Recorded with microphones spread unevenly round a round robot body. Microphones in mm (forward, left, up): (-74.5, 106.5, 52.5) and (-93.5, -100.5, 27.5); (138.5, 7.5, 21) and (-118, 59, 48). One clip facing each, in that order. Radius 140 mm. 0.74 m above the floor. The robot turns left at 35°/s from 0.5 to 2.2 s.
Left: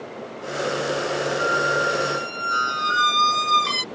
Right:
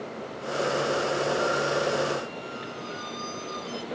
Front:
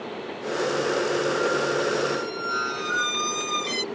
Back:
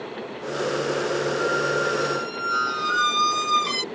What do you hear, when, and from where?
1.4 s a squeak: 115° left; by 3.8 s 90° left